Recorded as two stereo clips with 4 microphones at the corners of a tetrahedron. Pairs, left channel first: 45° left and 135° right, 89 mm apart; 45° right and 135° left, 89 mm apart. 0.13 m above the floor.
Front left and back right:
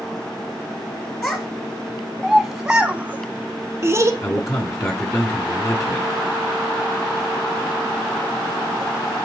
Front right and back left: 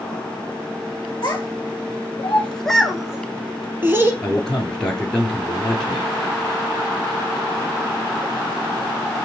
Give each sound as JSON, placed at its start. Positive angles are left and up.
{"t": 1.2, "sound": "a child speaking", "azimuth_deg": -15, "distance_m": 1.1}
{"t": 4.2, "sound": "a man speaking", "azimuth_deg": 30, "distance_m": 1.8}